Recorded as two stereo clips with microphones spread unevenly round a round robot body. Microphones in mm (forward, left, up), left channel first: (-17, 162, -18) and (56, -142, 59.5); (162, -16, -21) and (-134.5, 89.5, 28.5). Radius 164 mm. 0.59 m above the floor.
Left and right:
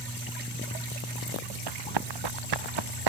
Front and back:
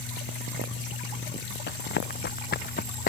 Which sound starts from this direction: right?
Running footsteps, at 1.7 s.